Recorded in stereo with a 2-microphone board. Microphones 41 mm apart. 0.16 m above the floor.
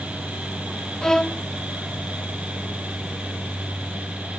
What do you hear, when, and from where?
1.0 s a violin: 15° left (ahead or behind)